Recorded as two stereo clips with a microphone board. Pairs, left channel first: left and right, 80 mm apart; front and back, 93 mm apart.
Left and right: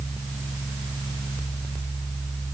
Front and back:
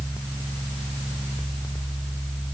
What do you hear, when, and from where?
Only background noise.